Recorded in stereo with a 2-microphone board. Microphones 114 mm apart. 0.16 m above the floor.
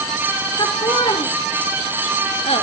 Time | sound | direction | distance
0.6 | laughter | 40° left (ahead or behind) | 3 m